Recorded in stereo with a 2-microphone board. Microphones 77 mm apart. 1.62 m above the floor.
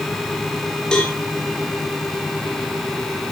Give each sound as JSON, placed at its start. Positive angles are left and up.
{"t": 0.9, "sound": "a cowbell", "side_deg": 10, "distance_m": 3.0}